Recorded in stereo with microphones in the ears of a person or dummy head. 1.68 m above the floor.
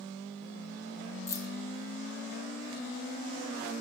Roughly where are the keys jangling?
Centre.